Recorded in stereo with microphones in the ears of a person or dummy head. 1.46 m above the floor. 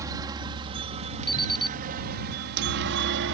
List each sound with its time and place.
0.0 s a helicopter: 20° right (ahead or behind); by 3.4 s 65° right (ahead or behind)
1.3 s an alarm clock: 30° left (ahead or behind)